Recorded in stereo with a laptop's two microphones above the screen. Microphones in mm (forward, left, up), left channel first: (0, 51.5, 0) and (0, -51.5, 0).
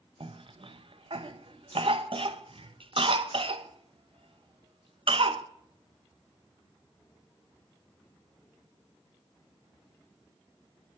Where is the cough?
60° right (ahead or behind), 0.5 m.